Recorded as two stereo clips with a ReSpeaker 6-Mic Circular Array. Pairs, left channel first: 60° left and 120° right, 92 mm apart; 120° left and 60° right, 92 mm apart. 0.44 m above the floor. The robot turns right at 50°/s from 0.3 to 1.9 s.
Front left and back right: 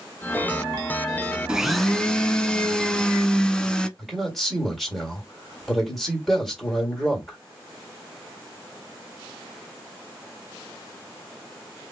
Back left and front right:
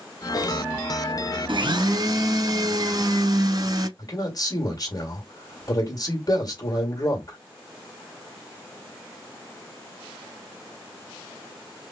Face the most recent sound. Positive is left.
turn(degrees=150)